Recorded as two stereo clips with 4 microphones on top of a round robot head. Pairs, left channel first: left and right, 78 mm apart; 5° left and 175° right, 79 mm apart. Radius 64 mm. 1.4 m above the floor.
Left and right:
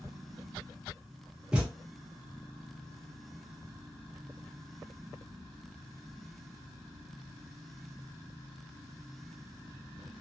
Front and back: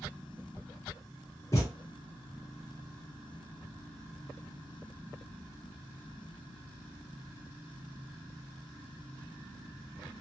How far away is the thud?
About 0.7 m.